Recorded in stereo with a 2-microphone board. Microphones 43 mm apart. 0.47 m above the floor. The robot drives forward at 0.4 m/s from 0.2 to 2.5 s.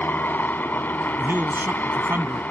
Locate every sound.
0.0 s a helicopter: 45° left (ahead or behind)
1.2 s a man speaking: 55° right (ahead or behind); by 2.4 s 60° right (ahead or behind)